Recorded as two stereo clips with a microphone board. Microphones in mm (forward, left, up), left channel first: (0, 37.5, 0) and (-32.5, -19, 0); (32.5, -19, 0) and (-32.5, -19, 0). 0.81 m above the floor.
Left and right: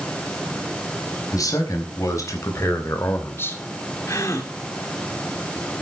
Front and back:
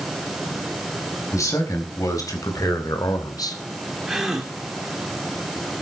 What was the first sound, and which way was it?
A man speaking, 30° left.